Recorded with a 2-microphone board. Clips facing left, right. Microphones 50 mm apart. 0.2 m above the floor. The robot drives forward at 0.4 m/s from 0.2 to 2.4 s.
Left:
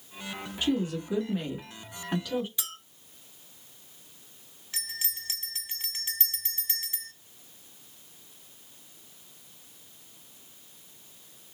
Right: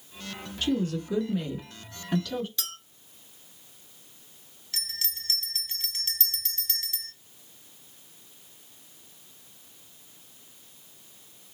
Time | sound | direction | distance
0.6 | a woman speaking | 20° left (ahead or behind) | 1.3 m
2.6 | a clink | 15° left (ahead or behind) | 1.2 m
4.7 | a bell | 25° left (ahead or behind) | 0.9 m